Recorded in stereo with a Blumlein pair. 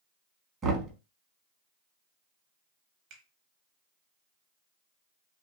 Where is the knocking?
25° right, 0.9 m.